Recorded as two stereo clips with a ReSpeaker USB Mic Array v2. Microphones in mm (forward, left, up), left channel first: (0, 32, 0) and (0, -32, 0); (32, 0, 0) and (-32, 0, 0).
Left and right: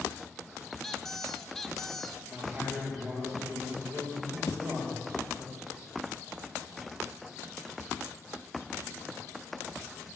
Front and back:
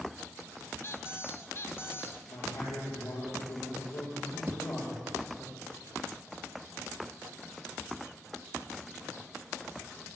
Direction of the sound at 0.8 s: 5° left.